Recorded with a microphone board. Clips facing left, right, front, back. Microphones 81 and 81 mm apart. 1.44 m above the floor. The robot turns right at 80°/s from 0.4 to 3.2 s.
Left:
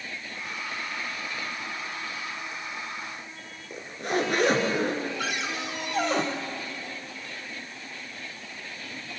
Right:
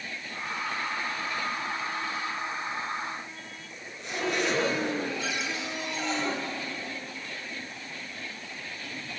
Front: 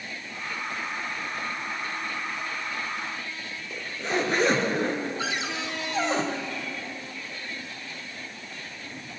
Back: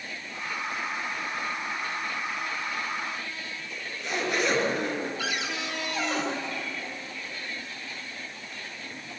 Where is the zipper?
55° left, 5 m.